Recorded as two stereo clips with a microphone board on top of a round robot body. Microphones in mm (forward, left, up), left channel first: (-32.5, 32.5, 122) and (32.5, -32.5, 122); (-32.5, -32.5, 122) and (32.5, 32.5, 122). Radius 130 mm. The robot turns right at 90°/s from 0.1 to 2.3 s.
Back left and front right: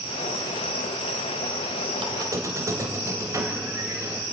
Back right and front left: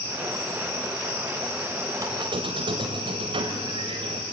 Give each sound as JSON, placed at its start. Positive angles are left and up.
{"t": 2.0, "sound": "a squeak", "azimuth_deg": -15, "distance_m": 2.5}